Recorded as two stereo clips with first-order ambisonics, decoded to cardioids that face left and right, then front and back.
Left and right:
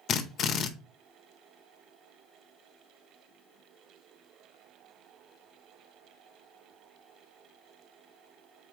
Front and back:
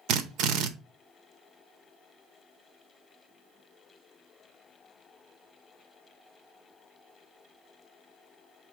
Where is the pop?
No pop in this recording.